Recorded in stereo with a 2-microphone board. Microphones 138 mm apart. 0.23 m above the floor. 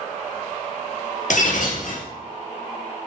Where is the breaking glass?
65° left (ahead or behind), 2.5 m.